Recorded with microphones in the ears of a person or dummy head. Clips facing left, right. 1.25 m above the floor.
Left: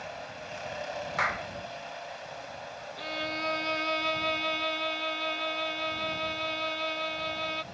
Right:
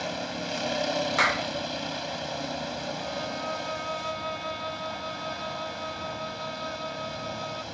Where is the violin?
30° left (ahead or behind).